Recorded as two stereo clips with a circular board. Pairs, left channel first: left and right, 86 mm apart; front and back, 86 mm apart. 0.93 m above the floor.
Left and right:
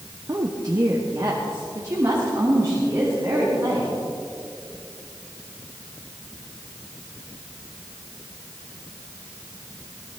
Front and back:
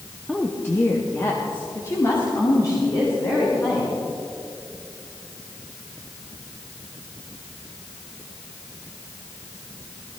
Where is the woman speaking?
75° right, 0.8 m; by 4.0 s 40° right, 4.5 m.